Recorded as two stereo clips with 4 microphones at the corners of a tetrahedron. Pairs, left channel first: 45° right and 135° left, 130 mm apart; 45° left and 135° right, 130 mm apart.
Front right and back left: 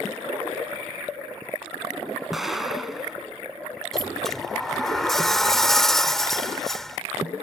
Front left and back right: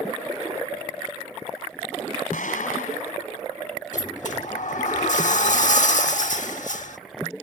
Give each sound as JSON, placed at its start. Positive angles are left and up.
{"t": 2.3, "sound": "an explosion", "azimuth_deg": 45}
{"t": 3.9, "sound": "a sliding door", "azimuth_deg": 40}